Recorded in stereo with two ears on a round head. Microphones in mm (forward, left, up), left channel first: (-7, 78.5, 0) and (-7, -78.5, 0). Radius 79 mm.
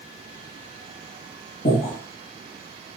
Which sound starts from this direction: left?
Breathing, at 1.6 s.